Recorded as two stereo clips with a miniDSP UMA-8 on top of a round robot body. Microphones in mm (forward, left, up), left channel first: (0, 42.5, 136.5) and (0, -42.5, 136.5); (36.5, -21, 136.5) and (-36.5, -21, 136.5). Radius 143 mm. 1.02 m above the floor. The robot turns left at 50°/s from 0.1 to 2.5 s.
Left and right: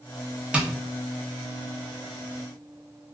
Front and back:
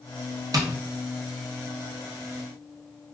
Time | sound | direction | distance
0.5 | tapping | 165° right | 0.9 m